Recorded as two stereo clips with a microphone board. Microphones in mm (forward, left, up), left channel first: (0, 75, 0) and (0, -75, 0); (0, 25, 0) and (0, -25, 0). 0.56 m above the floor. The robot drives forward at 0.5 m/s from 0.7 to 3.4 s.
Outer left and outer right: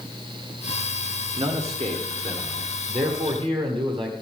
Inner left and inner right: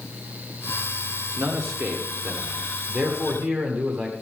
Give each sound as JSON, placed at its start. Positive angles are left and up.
{"t": 1.4, "sound": "a man speaking", "side_deg": -50, "distance_m": 1.4}